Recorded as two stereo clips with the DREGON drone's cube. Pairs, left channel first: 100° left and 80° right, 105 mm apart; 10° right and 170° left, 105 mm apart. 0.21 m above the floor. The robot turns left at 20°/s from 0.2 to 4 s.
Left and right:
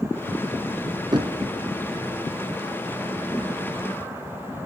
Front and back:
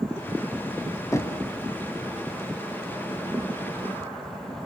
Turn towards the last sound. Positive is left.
turn(degrees=-120)